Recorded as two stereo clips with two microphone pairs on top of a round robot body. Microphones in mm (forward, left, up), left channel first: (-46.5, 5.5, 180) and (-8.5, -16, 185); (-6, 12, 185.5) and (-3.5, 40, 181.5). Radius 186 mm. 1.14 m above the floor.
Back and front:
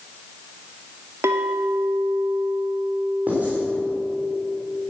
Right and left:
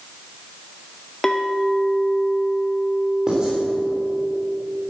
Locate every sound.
1.2 s a clink: 20° right, 0.6 m
3.3 s writing: 25° left, 3.5 m